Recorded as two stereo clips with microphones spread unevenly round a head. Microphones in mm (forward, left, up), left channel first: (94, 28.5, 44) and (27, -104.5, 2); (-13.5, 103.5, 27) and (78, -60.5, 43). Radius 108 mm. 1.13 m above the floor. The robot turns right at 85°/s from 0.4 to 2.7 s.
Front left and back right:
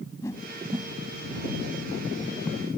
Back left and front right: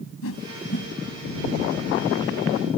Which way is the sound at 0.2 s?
140° left.